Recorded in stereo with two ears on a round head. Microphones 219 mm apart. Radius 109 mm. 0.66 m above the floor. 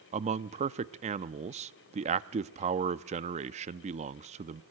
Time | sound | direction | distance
0.1 | a man speaking | 25° right (ahead or behind) | 0.6 m